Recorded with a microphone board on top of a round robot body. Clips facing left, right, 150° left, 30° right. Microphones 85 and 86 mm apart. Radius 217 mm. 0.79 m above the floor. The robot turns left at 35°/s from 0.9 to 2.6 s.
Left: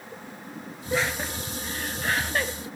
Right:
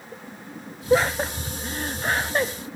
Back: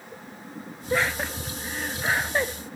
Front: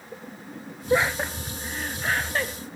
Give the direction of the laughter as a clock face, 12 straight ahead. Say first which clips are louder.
Right 7 dB, front 3 dB; 3 o'clock.